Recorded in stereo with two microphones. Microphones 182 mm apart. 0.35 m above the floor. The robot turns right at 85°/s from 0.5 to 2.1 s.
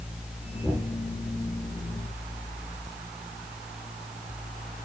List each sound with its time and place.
0.6 s knocking: centre (ahead or behind), 6.5 m; by 0.9 s 30° right (ahead or behind), 6.5 m